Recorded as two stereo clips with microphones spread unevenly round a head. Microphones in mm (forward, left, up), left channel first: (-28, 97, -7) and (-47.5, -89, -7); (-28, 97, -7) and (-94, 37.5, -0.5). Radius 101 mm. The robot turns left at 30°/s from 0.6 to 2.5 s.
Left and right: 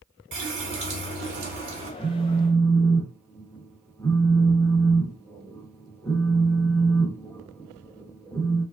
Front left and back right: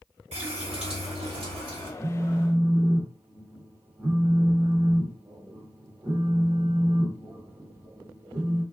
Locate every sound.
0.3 s a running tap: 110° right, 1.5 m; by 1.9 s 150° right, 1.5 m
2.0 s a phone buzzing: 175° left, 1.1 m; by 8.6 s 160° left, 1.1 m